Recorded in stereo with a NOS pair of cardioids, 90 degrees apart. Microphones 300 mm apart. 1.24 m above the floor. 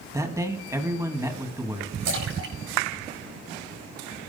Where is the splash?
65° right, 8 m.